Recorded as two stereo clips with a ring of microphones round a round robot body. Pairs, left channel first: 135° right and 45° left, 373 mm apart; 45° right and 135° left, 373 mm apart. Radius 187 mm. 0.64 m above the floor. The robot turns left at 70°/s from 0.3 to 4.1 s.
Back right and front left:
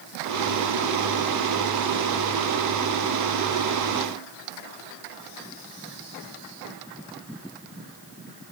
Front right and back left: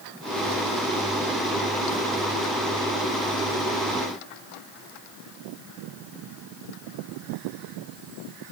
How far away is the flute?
I don't hear a flute.